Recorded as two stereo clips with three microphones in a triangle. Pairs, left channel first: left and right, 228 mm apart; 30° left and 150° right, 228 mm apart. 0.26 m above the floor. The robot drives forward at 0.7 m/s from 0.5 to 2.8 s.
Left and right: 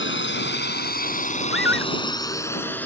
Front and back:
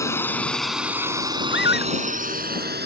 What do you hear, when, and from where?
0.0 s a drone: 105° left; by 2.9 s 175° left
1.5 s a scream: 65° left; by 1.9 s 70° left